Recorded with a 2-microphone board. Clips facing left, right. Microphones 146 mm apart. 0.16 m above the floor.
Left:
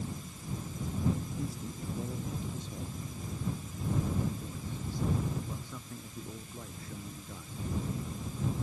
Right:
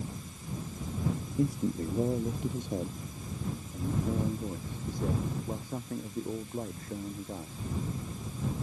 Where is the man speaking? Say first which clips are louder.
Right 10 dB; 70° right (ahead or behind); by 7.6 s 45° right (ahead or behind).